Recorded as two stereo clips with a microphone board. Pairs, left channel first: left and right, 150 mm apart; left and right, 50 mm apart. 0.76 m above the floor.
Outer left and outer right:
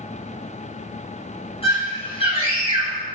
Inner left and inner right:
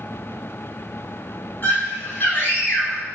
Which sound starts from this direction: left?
A scream, at 1.6 s.